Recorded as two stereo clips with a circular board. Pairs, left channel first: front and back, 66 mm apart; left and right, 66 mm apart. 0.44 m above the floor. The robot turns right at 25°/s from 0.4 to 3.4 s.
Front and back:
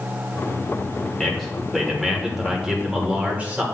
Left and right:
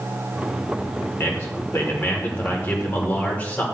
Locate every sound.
1.2 s a man speaking: 75° left, 1.5 m; by 3.6 s 130° left, 1.5 m